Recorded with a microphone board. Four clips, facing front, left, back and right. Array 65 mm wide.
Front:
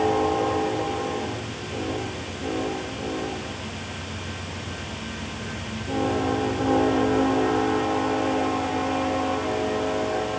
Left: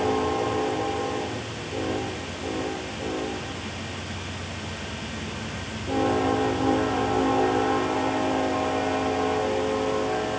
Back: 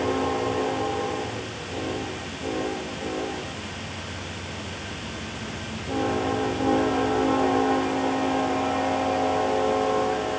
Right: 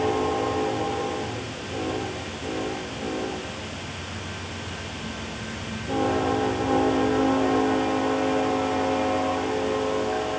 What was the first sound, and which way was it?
Only background noise.